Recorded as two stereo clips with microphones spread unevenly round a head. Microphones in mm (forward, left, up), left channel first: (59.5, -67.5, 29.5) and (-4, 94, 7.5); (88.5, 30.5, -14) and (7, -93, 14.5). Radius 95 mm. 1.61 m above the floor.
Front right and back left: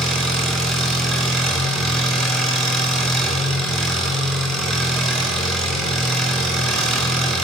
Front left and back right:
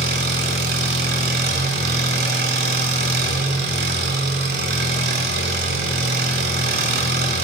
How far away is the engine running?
About 6 m.